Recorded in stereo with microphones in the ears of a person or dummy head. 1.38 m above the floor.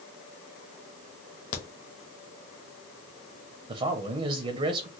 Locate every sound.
1.5 s a crack: 40° left (ahead or behind), 1.0 m
3.7 s a man speaking: 35° right (ahead or behind), 0.6 m